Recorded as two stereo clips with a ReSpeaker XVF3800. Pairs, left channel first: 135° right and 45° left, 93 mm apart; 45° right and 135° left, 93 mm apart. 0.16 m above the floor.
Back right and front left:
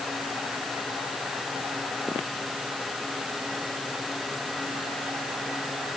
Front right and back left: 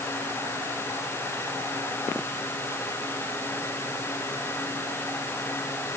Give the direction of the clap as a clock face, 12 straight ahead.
I don't hear a clap.